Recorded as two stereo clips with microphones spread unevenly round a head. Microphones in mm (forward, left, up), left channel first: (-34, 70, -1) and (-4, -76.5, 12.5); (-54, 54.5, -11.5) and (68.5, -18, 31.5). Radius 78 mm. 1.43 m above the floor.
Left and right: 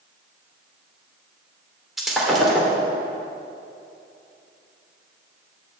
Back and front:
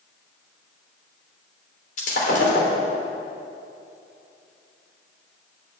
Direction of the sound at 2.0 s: 165° right.